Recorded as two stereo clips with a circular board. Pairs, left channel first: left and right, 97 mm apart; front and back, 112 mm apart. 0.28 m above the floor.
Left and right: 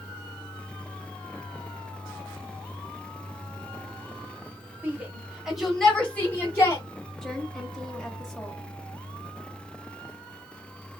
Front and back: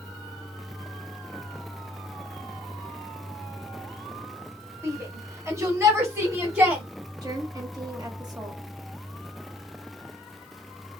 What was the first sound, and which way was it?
A shout, 140° right.